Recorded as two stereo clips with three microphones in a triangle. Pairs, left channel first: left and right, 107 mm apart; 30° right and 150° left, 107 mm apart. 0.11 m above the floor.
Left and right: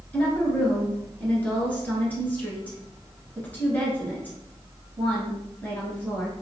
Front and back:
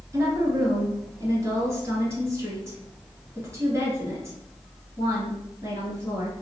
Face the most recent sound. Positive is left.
turn(degrees=145)